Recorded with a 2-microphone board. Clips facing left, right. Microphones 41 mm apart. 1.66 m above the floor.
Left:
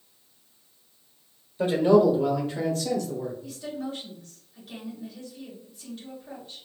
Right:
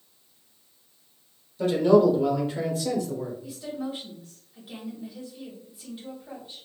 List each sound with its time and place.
1.6 s a man speaking: 25° left (ahead or behind), 1.1 m; by 3.3 s 25° right (ahead or behind), 1.3 m
3.4 s a woman speaking: 15° right (ahead or behind), 1.6 m